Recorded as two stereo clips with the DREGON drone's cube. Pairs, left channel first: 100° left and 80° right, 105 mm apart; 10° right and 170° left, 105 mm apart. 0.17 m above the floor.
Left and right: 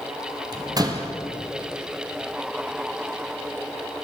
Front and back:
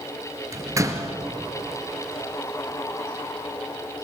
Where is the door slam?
130° right, 2.5 m.